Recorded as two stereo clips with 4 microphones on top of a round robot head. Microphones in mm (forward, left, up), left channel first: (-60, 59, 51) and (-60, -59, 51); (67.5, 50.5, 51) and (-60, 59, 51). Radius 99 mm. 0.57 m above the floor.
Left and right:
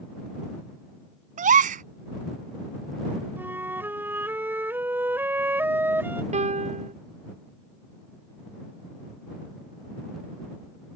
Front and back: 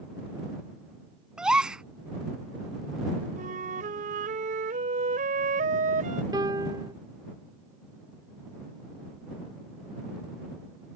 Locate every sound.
1.4 s a gasp: 100° right
3.4 s a flute: 160° right
6.3 s a piano: 115° right